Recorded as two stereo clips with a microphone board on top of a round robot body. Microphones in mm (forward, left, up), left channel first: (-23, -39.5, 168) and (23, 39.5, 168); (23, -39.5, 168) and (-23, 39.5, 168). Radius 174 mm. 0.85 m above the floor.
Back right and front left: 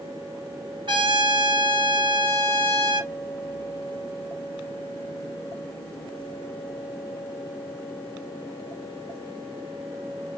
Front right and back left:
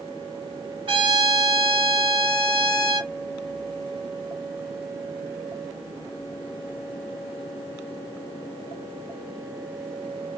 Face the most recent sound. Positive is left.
turn(degrees=95)